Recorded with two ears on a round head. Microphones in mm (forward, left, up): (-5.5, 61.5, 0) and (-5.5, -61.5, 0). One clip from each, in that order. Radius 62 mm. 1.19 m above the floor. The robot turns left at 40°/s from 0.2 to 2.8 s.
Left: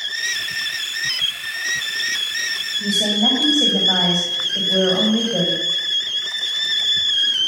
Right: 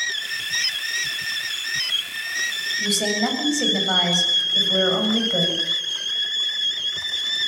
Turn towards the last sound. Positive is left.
turn(degrees=-50)  # may be behind; listen again after turning